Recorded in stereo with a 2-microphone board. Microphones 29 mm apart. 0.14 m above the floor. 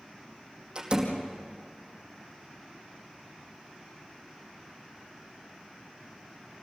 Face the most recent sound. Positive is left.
turn(degrees=-30)  # may be behind; listen again after turning